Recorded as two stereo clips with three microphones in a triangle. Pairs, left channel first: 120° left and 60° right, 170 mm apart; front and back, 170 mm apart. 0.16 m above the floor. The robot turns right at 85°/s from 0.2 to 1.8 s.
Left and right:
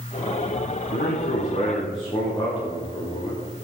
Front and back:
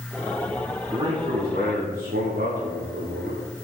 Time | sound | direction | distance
0.9 | a man speaking | 110° left | 8.5 m